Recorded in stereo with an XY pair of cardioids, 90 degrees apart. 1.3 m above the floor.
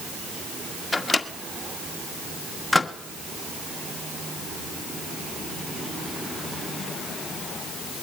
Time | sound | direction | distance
0.9 | a microwave | 15° left | 1.8 m